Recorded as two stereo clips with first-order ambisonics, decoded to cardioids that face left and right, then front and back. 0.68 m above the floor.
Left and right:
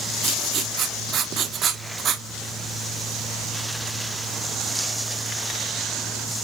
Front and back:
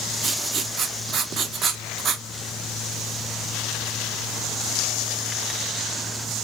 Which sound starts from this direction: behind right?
Writing, at 0.2 s.